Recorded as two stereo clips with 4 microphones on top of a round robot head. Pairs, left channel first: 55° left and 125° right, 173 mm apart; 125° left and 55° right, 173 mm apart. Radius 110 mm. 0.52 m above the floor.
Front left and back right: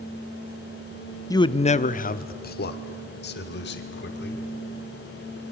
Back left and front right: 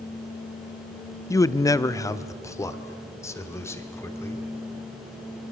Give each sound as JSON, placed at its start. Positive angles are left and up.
{"t": 1.3, "sound": "a man speaking", "azimuth_deg": 90, "distance_m": 0.7}